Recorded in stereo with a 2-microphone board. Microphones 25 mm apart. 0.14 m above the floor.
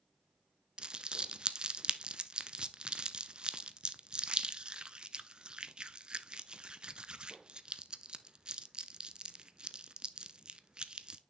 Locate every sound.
0.8 s crumpling: 35° right (ahead or behind), 0.5 m